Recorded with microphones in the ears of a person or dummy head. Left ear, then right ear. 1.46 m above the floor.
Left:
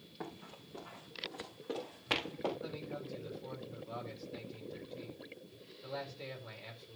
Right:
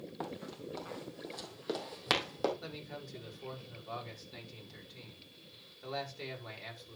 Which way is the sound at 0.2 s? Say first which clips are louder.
Right 4 dB; 45° right (ahead or behind).